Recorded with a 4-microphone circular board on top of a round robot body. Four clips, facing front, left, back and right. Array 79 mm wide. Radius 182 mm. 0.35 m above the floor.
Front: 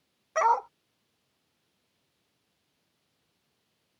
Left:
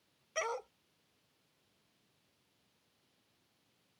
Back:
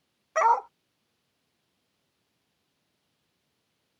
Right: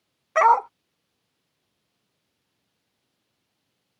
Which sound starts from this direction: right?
A dog barking, at 0.3 s.